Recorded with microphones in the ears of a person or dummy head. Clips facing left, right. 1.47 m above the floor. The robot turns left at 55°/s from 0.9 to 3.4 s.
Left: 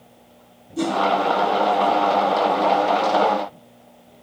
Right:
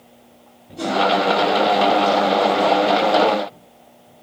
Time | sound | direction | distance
0.8 | a whoosh | 50° left (ahead or behind) | 1.1 m